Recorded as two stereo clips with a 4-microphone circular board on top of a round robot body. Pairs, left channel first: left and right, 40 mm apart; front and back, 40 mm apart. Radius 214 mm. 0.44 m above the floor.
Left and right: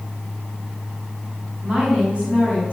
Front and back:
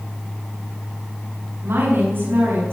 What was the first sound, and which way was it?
A woman speaking, 150° right.